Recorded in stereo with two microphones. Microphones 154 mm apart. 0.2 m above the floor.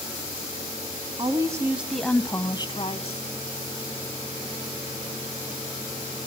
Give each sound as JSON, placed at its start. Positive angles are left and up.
{"t": 1.2, "sound": "a woman speaking", "side_deg": -30, "distance_m": 1.4}